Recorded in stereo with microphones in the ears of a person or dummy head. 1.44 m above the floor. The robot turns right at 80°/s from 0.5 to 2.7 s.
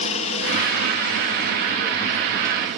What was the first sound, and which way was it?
A helicopter, 40° left.